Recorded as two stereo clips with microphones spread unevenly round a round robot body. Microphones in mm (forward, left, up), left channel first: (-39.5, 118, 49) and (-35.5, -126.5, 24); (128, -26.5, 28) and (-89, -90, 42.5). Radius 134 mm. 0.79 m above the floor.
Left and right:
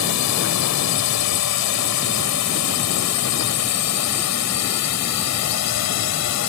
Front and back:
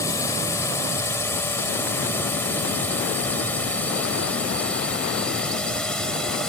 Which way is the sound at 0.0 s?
95° left.